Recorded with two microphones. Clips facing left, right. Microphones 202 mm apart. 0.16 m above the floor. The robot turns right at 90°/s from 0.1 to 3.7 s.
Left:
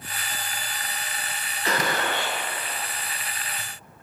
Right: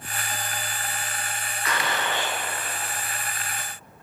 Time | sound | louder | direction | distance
1.6 | a gunshot | left 3 dB | 40° left | 0.7 m